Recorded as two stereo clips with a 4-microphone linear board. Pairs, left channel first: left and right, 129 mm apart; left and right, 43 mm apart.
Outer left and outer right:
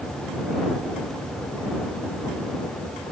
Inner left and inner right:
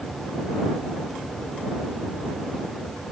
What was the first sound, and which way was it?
Only background noise.